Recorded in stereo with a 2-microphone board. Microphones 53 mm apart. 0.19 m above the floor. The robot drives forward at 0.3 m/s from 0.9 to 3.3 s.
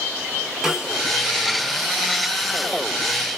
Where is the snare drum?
10° right (ahead or behind), 0.9 m; by 1.0 s 5° right (ahead or behind), 0.9 m.